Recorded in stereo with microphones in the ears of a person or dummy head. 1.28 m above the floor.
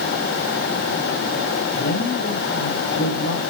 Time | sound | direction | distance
1.8 | a woman speaking | 65° left (ahead or behind) | 8 m